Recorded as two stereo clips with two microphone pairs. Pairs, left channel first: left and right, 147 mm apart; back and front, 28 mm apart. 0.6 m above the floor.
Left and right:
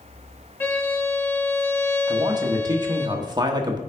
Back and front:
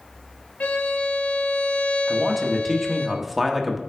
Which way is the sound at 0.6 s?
165° left.